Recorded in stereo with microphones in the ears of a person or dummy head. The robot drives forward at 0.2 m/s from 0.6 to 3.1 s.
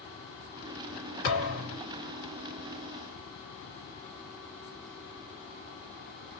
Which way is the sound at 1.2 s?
40° left (ahead or behind).